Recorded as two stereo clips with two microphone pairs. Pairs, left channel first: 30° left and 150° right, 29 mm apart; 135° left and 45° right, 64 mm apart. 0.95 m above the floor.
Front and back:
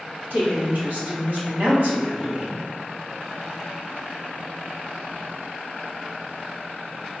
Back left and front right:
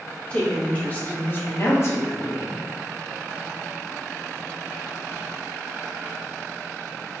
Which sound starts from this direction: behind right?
A woman speaking, at 0.3 s.